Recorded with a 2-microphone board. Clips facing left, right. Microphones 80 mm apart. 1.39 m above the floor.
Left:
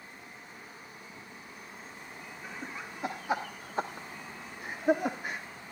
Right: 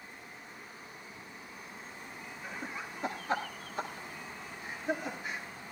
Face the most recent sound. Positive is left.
turn(degrees=55)  # may be behind; listen again after turning